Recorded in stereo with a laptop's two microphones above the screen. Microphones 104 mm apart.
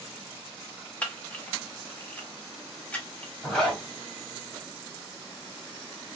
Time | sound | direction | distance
1.0 | a camera shutter | 15° left (ahead or behind) | 0.8 m
3.4 | a zipper | 10° left (ahead or behind) | 1.1 m